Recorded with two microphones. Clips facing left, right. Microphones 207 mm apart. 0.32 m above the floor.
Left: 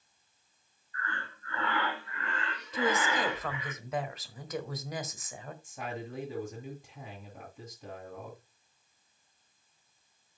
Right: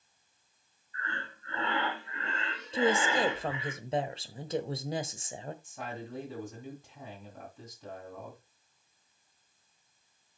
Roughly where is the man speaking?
Centre.